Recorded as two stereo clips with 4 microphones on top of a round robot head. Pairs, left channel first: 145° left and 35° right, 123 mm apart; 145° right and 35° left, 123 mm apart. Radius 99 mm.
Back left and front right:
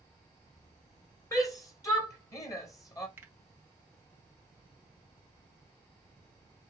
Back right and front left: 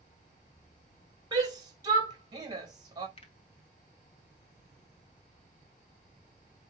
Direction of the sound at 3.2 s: 105° right.